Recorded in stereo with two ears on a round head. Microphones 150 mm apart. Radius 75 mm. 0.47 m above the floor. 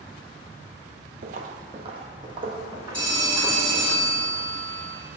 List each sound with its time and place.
1.2 s footsteps: 50° right (ahead or behind), 0.7 m; by 3.9 s 20° right (ahead or behind), 3 m
2.9 s a phone ringing: 5° left (ahead or behind), 3 m